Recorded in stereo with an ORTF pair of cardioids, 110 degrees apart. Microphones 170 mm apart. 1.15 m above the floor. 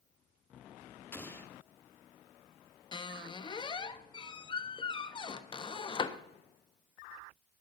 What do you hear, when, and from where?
1.1 s an explosion: 15° left, 1.3 m
2.9 s a squeak: 30° left, 1.0 m